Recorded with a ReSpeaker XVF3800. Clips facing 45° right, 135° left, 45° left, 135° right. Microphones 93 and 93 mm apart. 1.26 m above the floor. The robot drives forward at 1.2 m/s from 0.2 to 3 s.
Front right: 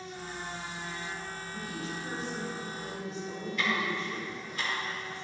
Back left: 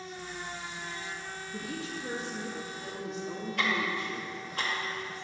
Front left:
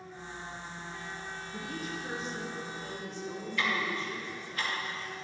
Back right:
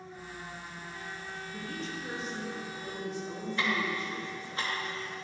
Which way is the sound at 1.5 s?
120° left.